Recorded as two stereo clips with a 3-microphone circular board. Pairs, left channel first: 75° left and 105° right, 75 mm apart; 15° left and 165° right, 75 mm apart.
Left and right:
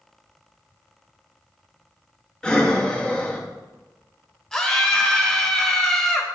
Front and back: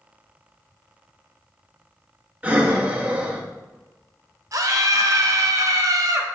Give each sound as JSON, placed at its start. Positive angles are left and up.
{"t": 2.4, "sound": "breathing", "azimuth_deg": 145, "distance_m": 0.8}
{"t": 4.5, "sound": "a scream", "azimuth_deg": 160, "distance_m": 1.1}